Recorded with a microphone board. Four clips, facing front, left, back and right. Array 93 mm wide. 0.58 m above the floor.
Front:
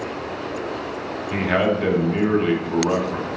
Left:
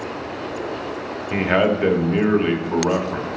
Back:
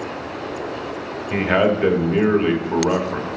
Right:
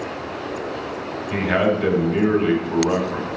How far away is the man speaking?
About 1.3 m.